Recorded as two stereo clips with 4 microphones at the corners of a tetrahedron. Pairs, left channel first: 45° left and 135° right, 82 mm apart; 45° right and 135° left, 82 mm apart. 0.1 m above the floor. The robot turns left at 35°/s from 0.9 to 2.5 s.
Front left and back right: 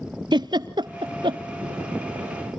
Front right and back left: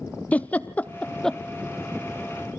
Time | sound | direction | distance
0.3 | a giggle | 115° right | 0.5 m